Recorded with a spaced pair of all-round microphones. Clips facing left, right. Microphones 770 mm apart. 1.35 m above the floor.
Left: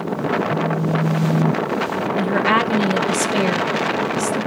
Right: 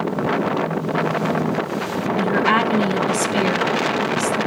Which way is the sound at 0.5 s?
45° left (ahead or behind).